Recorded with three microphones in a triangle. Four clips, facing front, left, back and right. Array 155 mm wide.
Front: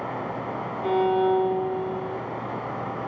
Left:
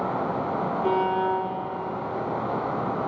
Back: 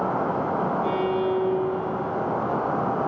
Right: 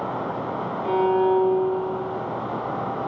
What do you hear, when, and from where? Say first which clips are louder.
0.8 s a violin: right 5 dB, front 2 dB; 60° left, 10 m